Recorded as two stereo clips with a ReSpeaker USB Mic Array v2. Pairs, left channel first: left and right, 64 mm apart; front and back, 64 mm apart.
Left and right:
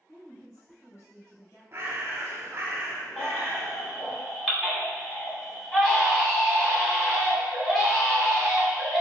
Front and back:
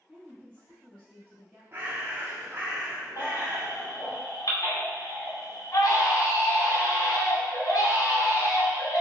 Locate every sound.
0.1 s a woman speaking: 75° left, 1.7 m
1.7 s a bird: 130° right, 0.8 m
3.2 s a baby crying: straight ahead, 1.2 m